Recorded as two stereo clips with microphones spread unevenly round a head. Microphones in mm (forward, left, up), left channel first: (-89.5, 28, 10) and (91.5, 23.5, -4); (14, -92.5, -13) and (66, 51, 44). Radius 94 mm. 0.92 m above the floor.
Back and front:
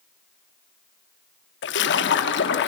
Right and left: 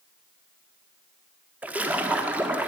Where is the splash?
155° left, 1.2 m.